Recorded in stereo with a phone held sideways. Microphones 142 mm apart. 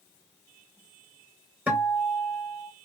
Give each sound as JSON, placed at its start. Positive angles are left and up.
{"t": 1.7, "sound": "a guitar", "side_deg": -10, "distance_m": 1.0}